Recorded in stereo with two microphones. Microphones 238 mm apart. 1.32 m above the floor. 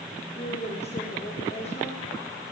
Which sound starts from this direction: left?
A woman speaking, at 0.4 s.